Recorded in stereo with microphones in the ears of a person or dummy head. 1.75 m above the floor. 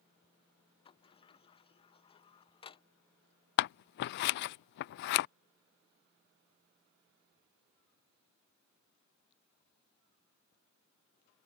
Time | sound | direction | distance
0.8 | a sliding door | 30° left (ahead or behind) | ?
3.6 | scissors | 55° left (ahead or behind) | ?